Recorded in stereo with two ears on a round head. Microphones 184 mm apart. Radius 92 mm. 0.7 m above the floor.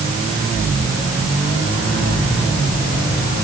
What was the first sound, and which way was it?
Only background noise.